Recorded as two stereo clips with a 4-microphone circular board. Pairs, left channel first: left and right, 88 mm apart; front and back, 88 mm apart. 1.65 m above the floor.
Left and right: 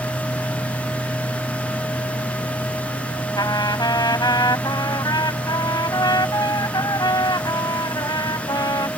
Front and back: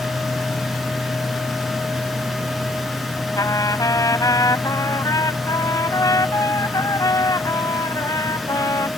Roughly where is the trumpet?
Ahead left.